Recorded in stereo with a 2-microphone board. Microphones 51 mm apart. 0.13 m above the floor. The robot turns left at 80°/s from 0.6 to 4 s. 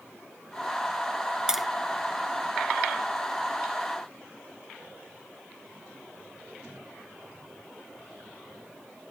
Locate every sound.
1.5 s tapping: 15° right (ahead or behind); by 1.7 s centre (ahead or behind)